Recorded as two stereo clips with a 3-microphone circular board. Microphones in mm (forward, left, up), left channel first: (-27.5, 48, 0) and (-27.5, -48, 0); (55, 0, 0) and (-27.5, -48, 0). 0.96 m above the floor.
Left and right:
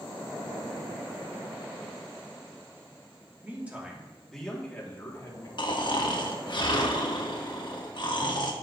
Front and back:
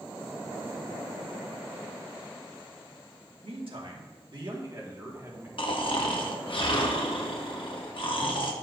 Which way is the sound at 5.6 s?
55° left.